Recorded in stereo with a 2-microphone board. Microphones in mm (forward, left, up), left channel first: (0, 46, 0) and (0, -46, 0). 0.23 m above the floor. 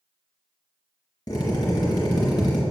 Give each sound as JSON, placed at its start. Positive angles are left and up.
{"t": 1.3, "sound": "a drill", "side_deg": 50, "distance_m": 2.5}